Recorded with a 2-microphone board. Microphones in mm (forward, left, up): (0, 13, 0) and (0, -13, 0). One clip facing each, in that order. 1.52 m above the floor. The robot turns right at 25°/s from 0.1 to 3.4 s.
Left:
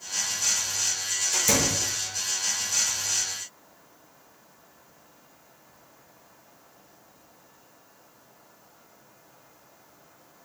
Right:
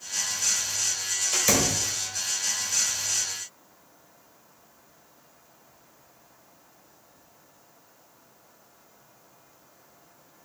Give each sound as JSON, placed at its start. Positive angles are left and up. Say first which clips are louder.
{"t": 1.3, "sound": "a door slam", "louder": "right 1 dB", "side_deg": -25, "distance_m": 1.1}